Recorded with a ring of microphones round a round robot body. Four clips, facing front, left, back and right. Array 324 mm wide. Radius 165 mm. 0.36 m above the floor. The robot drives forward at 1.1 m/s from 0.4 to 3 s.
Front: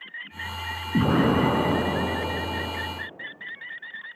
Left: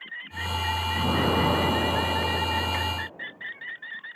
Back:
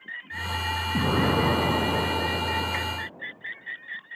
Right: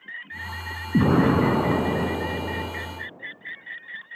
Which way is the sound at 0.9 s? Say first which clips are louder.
Right 7 dB, front 4 dB; 75° right.